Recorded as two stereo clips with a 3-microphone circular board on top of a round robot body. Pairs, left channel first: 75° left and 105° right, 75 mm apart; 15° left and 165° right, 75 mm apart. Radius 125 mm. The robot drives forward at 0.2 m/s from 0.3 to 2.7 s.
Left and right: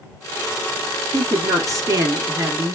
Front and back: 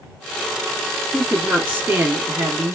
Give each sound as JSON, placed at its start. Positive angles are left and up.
{"t": 1.1, "sound": "a woman speaking", "azimuth_deg": -105, "distance_m": 1.5}